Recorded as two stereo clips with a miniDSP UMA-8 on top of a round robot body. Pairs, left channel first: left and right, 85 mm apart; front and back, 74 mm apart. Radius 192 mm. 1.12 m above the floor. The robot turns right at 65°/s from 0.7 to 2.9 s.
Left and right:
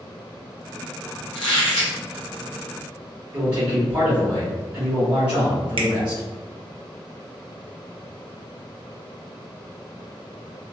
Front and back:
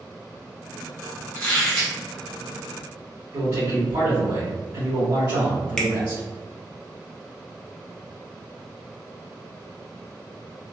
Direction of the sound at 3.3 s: 160° right.